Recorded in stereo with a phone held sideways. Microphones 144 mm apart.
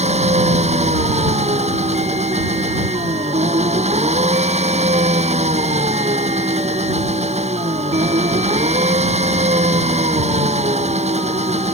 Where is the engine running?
45° right (ahead or behind).